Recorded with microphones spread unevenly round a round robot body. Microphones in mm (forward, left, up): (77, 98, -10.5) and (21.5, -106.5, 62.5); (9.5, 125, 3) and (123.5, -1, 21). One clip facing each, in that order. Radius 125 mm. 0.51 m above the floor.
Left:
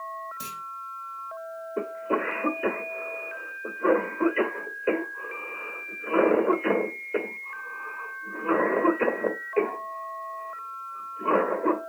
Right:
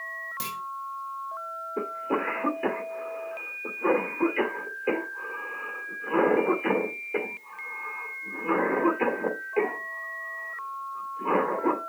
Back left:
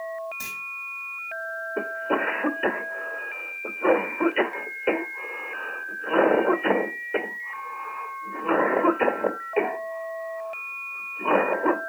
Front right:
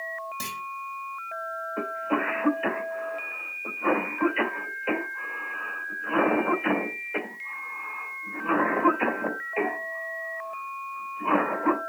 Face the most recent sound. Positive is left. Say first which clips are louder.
# left 1 dB, back left 2 dB
turn(degrees=140)